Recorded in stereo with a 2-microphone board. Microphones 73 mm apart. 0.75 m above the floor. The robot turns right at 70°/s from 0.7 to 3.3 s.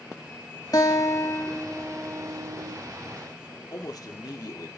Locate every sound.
0.7 s a guitar: 95° left, 1.3 m; by 2.8 s 120° right, 1.3 m
3.7 s a man speaking: 55° left (ahead or behind), 1.5 m